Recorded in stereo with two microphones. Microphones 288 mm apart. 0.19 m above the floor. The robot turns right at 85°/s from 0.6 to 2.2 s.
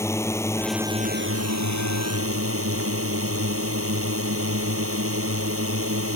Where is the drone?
170° left; by 6.2 s 55° right.